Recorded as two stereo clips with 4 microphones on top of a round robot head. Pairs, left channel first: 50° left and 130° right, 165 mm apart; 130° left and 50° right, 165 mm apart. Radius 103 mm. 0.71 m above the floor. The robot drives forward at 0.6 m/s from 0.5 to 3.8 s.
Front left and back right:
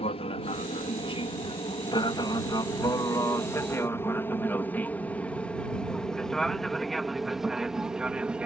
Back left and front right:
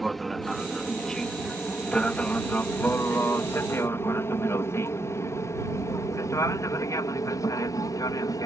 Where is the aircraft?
45° left; by 8.5 s 155° left.